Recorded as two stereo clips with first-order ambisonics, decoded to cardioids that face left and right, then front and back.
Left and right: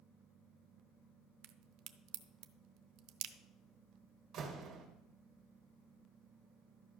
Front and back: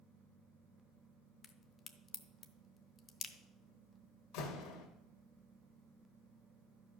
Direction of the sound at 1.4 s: 70° right.